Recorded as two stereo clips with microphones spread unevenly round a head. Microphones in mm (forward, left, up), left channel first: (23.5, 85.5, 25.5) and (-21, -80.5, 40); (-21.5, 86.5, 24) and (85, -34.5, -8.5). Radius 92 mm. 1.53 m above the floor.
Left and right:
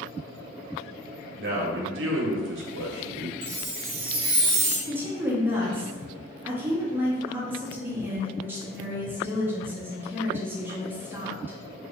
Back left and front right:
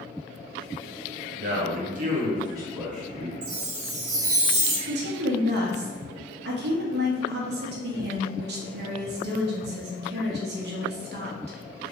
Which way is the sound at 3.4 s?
70° right.